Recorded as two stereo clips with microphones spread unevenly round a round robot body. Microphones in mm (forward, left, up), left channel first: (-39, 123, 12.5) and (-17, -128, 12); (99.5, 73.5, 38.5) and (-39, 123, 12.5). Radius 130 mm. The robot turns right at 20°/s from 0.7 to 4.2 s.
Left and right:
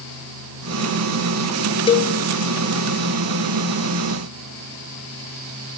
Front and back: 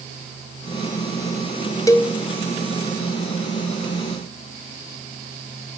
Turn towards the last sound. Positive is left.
turn(degrees=95)